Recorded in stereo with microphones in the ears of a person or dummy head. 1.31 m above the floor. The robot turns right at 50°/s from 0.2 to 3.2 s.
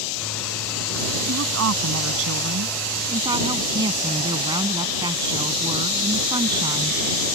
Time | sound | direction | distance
1.3 | a woman speaking | 120° right | ?